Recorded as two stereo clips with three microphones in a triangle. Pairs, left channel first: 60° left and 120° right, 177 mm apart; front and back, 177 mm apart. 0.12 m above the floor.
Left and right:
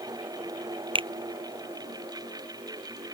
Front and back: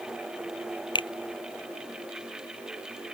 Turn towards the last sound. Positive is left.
turn(degrees=-60)